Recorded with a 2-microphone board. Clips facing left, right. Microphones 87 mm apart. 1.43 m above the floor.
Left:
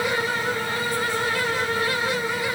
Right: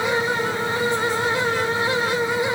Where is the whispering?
No whispering in this recording.